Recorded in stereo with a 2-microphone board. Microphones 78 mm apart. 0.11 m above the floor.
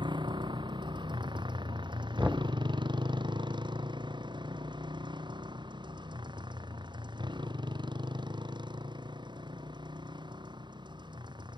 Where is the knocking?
15° right (ahead or behind).